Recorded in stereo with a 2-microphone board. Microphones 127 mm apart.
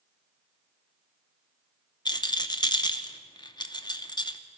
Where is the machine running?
I don't hear a machine running.